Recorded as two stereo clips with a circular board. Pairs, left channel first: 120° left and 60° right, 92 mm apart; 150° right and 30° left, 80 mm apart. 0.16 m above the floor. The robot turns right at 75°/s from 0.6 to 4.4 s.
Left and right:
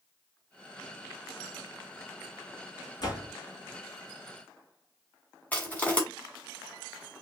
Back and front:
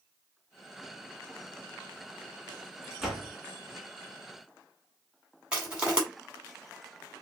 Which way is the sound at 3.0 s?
110° left.